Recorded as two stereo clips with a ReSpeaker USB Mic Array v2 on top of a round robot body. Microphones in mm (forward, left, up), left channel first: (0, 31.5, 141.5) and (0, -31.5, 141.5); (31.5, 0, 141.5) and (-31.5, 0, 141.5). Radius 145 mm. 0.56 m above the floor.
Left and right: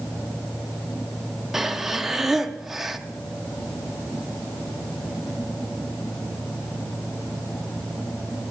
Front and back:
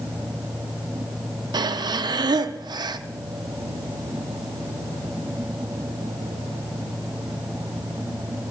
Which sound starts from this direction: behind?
Breathing, at 1.5 s.